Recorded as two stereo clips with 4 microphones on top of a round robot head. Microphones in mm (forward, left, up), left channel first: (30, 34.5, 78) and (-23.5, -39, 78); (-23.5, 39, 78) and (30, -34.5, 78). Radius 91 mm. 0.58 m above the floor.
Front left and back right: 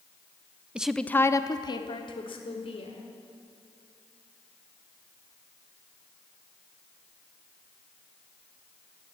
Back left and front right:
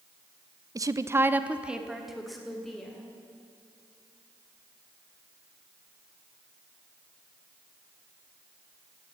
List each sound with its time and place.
0.8 s a woman speaking: 55° right, 0.8 m; by 3.1 s 40° left, 2.5 m